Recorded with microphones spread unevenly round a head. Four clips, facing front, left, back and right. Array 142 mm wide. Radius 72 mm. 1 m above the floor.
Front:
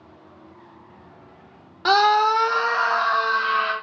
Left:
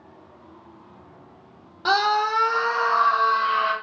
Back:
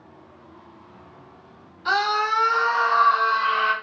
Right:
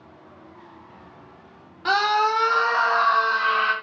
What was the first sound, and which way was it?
A scream, 20° left.